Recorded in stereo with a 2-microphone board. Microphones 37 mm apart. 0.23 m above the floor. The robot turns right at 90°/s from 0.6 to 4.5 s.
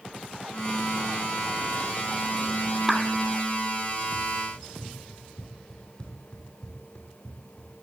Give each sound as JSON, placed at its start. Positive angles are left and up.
{"t": 2.9, "sound": "a clap", "side_deg": -5, "distance_m": 2.0}
{"t": 4.5, "sound": "running footsteps", "side_deg": 25, "distance_m": 5.0}